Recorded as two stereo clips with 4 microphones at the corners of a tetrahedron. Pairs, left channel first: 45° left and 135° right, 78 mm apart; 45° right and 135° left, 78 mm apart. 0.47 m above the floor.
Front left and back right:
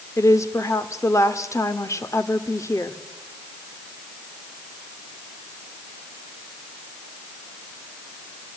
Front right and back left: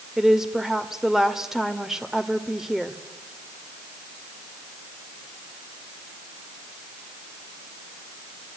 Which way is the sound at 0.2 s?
55° left.